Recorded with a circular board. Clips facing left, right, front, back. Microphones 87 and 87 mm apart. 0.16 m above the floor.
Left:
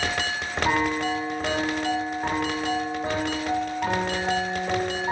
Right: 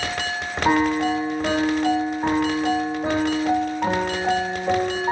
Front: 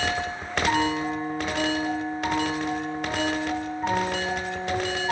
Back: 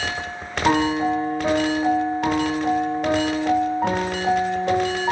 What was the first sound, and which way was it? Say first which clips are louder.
A piano: right 6 dB, back 6 dB; 155° right.